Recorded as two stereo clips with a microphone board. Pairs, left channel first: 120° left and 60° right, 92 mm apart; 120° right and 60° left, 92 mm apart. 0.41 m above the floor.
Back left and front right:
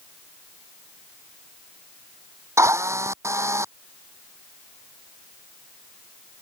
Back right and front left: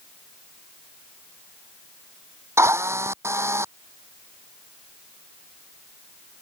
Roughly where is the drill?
Ahead.